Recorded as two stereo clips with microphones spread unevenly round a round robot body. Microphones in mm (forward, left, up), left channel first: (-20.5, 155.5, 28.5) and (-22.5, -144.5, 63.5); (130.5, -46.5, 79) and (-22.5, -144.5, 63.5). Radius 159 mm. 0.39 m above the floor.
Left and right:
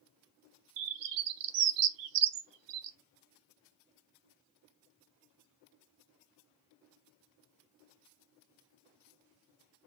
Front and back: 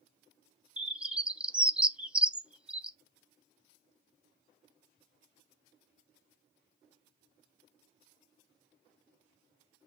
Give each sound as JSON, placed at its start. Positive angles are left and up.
{"t": 0.8, "sound": "a bird", "azimuth_deg": -60, "distance_m": 0.6}